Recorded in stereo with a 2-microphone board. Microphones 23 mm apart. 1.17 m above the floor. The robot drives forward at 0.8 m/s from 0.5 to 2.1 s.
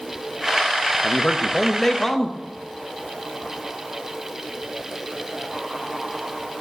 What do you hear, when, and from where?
1.0 s a man speaking: 35° left (ahead or behind), 1.0 m; by 2.4 s 20° left (ahead or behind), 1.8 m